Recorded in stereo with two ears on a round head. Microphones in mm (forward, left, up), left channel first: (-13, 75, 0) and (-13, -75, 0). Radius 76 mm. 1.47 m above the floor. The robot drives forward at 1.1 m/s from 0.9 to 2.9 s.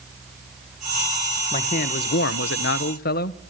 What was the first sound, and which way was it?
A man speaking, 40° left (ahead or behind).